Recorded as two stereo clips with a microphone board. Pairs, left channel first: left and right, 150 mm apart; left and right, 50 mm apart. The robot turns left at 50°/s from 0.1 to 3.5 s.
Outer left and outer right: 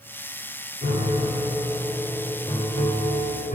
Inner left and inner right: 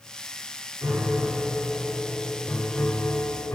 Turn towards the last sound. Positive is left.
turn(degrees=115)